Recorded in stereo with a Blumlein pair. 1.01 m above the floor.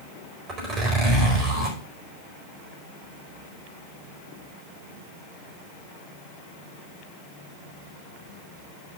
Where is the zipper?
30° right, 4 m.